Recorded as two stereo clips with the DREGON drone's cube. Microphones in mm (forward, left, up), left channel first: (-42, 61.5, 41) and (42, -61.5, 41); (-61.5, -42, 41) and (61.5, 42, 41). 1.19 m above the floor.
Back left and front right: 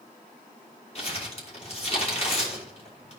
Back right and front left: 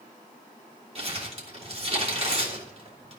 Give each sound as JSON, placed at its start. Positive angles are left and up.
{"t": 0.9, "sound": "crumpling", "azimuth_deg": 80, "distance_m": 3.5}